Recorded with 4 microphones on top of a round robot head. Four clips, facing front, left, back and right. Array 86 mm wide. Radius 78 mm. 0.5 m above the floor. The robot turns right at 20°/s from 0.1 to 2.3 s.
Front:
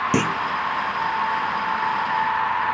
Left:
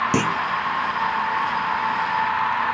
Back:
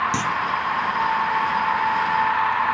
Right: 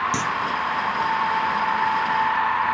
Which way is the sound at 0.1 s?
35° left.